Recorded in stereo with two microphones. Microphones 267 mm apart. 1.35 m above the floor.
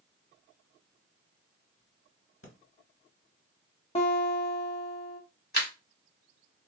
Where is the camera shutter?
40° left (ahead or behind), 1.3 m.